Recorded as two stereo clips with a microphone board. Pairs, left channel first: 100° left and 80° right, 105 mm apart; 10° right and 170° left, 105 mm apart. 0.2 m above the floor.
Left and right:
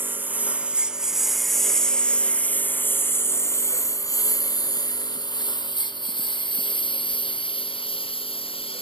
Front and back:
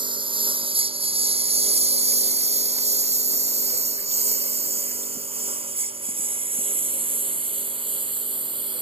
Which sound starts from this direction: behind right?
A lawn mower, at 0.0 s.